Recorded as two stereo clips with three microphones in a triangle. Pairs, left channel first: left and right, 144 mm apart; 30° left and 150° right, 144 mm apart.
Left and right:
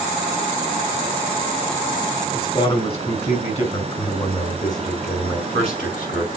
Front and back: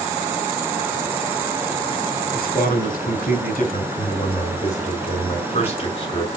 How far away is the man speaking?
About 5.5 m.